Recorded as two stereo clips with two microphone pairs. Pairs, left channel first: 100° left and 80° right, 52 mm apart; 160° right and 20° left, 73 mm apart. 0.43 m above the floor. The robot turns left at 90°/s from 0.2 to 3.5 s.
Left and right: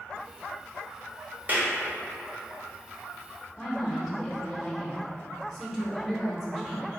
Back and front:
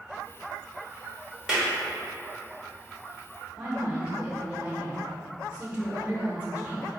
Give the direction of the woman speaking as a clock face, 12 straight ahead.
11 o'clock.